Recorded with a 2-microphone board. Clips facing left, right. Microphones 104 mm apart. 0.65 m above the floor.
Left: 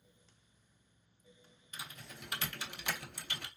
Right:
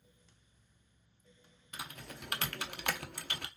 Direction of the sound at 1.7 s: 60° right (ahead or behind).